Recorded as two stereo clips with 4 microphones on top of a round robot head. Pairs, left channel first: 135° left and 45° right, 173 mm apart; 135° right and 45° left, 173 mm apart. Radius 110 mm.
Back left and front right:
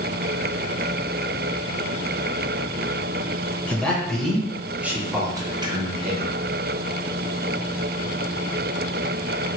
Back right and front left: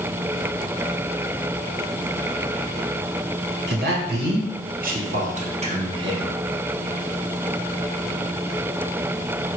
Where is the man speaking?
50° left, 1.6 m; by 6.4 s 20° right, 1.0 m.